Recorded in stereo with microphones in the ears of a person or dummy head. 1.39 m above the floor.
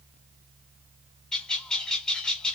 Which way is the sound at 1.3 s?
10° left (ahead or behind).